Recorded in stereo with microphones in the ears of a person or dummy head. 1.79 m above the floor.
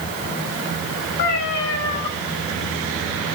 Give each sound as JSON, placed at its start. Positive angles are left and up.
{"t": 1.2, "sound": "a cat meowing", "side_deg": 55, "distance_m": 2.5}